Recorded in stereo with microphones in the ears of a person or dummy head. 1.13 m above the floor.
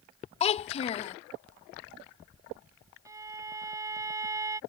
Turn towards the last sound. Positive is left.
turn(degrees=-20)  # may be behind; listen again after turning